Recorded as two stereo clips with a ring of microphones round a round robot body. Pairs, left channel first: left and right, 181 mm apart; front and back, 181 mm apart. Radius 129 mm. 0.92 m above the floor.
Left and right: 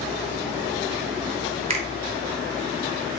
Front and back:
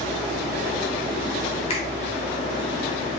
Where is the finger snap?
50° right, 0.8 m.